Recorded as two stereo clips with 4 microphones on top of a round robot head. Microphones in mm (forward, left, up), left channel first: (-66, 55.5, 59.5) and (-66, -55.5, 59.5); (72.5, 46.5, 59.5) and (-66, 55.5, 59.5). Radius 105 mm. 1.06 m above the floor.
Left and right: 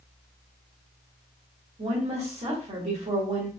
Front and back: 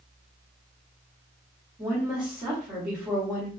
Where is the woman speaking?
100° right, 1.4 m.